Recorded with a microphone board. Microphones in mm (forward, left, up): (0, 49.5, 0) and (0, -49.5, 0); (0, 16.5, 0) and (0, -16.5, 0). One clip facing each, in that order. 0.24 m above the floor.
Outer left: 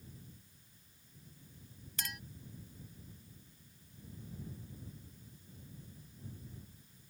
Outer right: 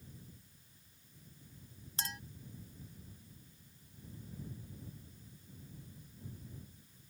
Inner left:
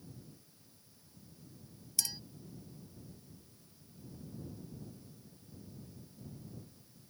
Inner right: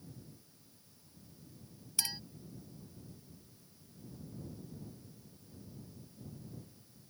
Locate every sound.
2.0 s a clink: 30° right (ahead or behind)